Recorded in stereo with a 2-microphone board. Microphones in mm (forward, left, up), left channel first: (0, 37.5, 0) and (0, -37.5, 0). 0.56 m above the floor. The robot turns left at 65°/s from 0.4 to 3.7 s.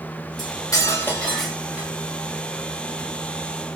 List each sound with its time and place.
0.4 s cutlery clinking: 70° left, 1.3 m; by 1.9 s 25° right, 1.3 m